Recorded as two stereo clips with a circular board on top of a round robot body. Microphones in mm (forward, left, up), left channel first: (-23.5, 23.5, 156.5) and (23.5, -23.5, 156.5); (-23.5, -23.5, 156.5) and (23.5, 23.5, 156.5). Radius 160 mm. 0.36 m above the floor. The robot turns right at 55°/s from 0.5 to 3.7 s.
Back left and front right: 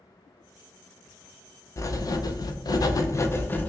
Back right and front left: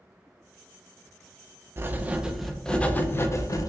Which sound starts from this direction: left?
Writing, at 1.8 s.